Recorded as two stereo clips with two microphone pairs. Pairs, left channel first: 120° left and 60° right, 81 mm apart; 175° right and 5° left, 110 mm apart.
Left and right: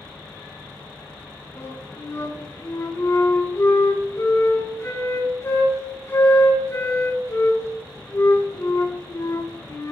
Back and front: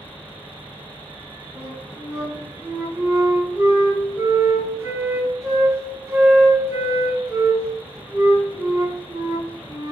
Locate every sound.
1.6 s a flute: 70° left, 6 m